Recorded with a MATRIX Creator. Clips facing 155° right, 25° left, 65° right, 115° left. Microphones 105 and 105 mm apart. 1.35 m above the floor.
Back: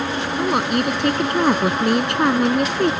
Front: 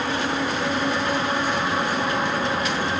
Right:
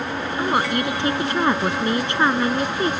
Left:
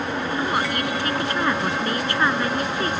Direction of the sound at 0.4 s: 135° right.